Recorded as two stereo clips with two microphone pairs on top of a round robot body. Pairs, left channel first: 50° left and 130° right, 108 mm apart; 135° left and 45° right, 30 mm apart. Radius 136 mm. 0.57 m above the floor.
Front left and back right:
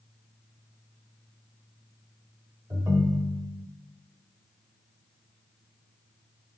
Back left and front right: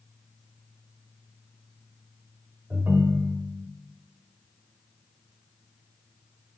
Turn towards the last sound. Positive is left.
turn(degrees=-70)